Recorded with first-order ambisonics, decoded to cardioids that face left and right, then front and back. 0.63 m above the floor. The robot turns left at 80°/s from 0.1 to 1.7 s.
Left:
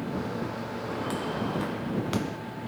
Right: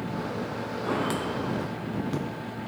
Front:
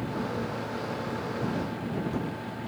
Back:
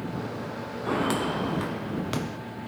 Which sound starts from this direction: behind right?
Footsteps, at 0.8 s.